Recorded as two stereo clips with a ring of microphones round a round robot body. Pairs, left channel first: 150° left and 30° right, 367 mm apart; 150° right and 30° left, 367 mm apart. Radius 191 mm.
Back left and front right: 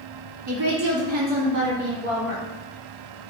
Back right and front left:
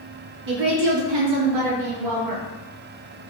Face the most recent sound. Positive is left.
turn(degrees=35)